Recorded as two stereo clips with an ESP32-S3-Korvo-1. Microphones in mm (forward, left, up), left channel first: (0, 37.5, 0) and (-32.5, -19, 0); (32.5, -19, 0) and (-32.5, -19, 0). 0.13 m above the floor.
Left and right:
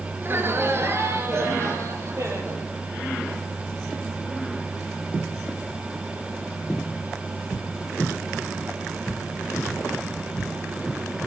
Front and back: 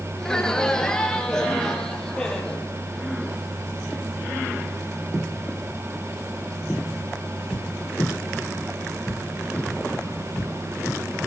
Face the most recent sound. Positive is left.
turn(degrees=-80)